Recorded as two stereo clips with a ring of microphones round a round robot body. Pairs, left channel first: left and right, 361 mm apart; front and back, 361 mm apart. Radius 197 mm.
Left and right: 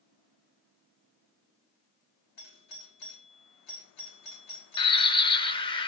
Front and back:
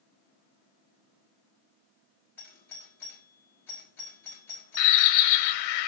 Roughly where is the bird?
Ahead.